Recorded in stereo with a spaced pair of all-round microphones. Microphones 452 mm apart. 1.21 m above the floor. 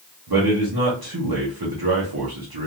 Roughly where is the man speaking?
Right.